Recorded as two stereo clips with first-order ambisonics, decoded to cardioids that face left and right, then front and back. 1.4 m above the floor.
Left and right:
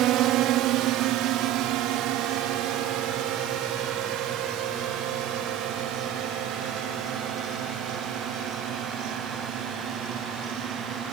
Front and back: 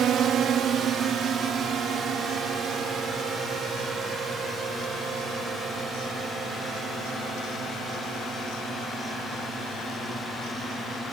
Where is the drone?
130° right; by 11.1 s 115° right.